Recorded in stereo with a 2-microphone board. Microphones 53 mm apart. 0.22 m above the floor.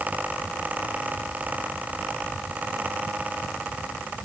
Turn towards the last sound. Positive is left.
No sound to turn to.